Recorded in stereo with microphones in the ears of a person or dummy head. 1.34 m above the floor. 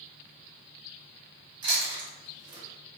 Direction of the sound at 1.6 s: 30° right (ahead or behind).